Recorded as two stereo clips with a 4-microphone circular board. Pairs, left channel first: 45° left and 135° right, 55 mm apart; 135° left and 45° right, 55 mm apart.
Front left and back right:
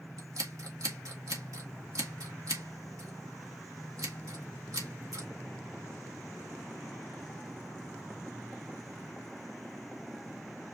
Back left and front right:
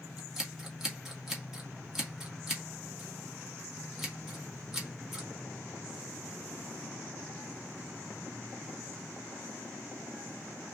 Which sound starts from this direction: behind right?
Scissors, at 0.2 s.